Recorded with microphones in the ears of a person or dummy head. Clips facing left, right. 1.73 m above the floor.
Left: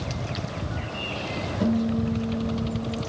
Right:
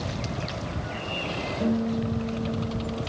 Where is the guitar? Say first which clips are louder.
Left 2 dB; centre (ahead or behind), 5.5 m.